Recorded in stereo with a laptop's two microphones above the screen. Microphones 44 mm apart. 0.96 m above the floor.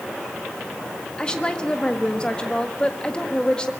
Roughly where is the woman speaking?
Left.